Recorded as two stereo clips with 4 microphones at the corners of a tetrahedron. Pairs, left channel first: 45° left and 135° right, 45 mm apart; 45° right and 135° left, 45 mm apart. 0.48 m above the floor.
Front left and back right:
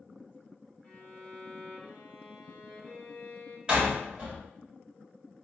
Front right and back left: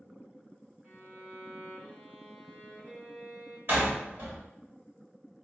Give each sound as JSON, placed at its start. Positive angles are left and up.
{"t": 0.8, "sound": "a violin", "azimuth_deg": 100, "distance_m": 1.4}
{"t": 3.7, "sound": "a door slam", "azimuth_deg": 155, "distance_m": 1.5}